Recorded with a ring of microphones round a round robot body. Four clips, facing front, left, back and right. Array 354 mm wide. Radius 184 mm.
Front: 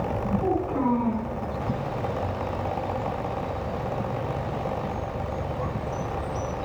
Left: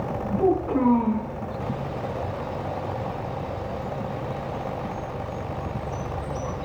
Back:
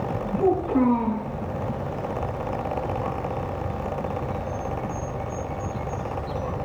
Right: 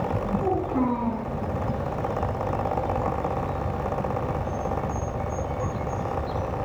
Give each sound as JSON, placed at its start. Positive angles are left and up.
{"t": 0.4, "sound": "a child speaking", "azimuth_deg": 100, "distance_m": 7.5}